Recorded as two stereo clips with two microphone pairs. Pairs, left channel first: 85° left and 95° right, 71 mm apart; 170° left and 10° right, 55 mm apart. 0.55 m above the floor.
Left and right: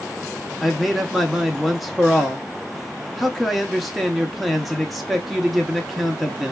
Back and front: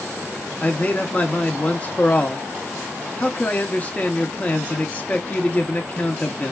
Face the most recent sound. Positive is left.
turn(degrees=180)